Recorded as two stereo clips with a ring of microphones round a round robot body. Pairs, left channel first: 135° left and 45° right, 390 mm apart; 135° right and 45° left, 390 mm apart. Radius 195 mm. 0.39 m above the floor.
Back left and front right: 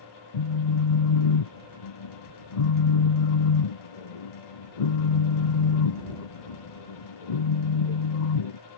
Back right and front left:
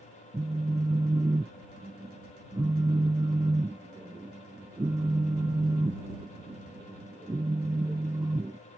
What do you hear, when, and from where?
0.3 s a phone buzzing: 130° left